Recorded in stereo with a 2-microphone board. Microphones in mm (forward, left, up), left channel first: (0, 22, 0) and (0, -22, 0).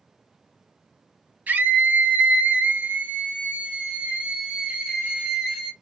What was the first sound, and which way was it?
A scream, 40° right (ahead or behind).